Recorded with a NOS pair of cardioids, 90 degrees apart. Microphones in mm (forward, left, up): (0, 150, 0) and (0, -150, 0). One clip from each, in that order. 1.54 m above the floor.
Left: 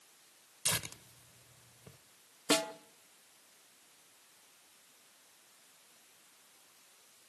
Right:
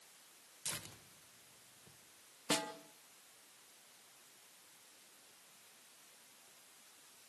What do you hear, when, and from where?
0.7 s tearing paper: 55° left, 1.1 m
2.5 s a snare drum: 35° left, 1.1 m